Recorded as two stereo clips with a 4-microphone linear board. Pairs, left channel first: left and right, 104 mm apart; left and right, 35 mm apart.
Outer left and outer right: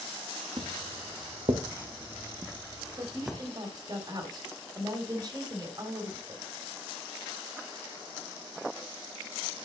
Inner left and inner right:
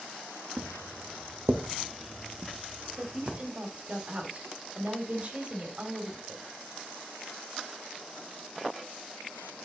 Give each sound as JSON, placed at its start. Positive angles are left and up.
{"t": 0.6, "sound": "footsteps", "side_deg": -55, "distance_m": 1.9}
{"t": 3.0, "sound": "a woman speaking", "side_deg": -40, "distance_m": 2.5}